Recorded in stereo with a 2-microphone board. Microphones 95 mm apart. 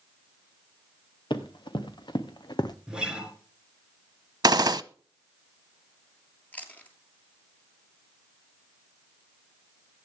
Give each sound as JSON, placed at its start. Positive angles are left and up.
{"t": 1.3, "sound": "running footsteps", "side_deg": 55, "distance_m": 2.5}
{"t": 2.9, "sound": "a guitar", "side_deg": -10, "distance_m": 4.5}
{"t": 4.4, "sound": "a gunshot", "side_deg": -45, "distance_m": 0.6}
{"t": 6.5, "sound": "chewing", "side_deg": 15, "distance_m": 2.5}